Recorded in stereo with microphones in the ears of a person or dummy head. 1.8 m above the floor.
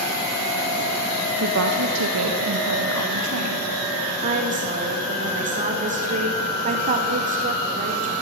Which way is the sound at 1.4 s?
75° right (ahead or behind).